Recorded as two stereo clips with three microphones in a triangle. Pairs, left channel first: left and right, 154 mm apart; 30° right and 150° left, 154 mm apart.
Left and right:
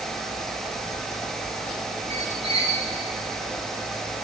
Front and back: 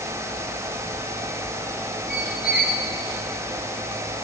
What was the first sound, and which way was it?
A squeak, 40° right.